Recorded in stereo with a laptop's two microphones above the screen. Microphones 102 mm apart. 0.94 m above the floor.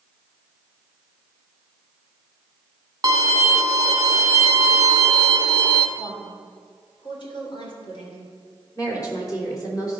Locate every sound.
3.0 s a violin: 40° right (ahead or behind), 0.8 m
6.0 s a woman speaking: 50° left (ahead or behind), 2.5 m
8.8 s a woman speaking: 35° left (ahead or behind), 3.5 m